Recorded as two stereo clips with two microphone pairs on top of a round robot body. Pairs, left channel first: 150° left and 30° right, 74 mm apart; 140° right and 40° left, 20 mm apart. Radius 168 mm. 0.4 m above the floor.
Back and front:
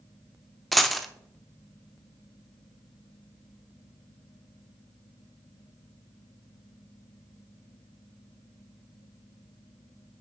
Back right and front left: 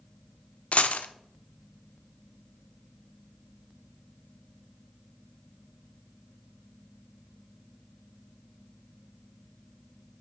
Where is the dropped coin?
120° right, 0.7 m.